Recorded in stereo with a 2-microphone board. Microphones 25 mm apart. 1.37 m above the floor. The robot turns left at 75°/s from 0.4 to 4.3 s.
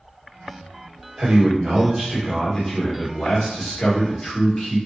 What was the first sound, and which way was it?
A man speaking, 100° right.